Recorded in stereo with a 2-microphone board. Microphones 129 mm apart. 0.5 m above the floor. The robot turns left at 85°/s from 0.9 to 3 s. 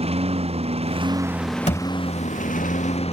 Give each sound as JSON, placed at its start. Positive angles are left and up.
{"t": 0.0, "sound": "a lawn mower", "azimuth_deg": -130}
{"t": 1.7, "sound": "a thud", "side_deg": 55}